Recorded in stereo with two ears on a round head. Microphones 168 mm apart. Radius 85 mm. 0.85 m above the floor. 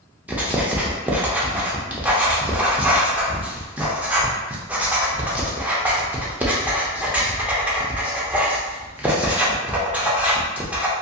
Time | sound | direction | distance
0.3 | writing | 10° right (ahead or behind) | 0.5 m